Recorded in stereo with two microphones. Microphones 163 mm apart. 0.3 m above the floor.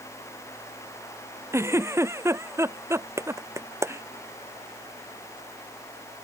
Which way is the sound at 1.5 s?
15° right (ahead or behind).